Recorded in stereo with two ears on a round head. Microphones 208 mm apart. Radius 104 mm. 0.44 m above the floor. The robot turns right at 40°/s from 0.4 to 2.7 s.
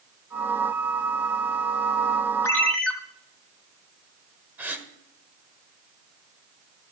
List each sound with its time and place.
2.4 s a ringtone: 15° left (ahead or behind), 2.5 m; by 2.9 s 5° left (ahead or behind), 2.5 m
4.6 s a gasp: 10° right (ahead or behind), 1.5 m